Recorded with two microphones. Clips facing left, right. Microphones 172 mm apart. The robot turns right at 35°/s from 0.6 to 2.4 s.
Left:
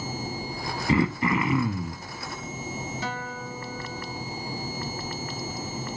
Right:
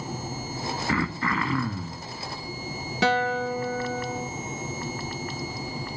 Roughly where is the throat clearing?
Centre.